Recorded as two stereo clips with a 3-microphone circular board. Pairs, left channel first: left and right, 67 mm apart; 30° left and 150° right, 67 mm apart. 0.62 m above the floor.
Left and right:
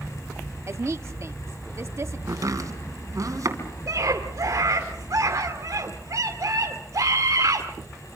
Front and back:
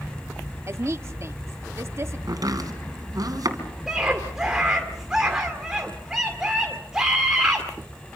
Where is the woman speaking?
120° right, 1.0 m.